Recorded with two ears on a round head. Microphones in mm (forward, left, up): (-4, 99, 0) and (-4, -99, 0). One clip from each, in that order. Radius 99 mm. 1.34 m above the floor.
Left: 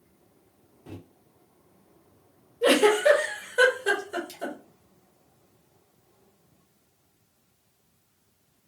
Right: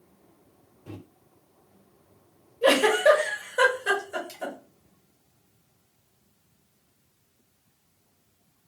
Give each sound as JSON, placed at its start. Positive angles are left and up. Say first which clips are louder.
{"t": 0.9, "sound": "a microwave", "louder": "right 1 dB", "side_deg": 10, "distance_m": 1.0}
{"t": 2.6, "sound": "a giggle", "louder": "even", "side_deg": 10, "distance_m": 1.1}